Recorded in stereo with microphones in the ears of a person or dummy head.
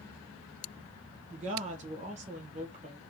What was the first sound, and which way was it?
A woman speaking, 35° right (ahead or behind).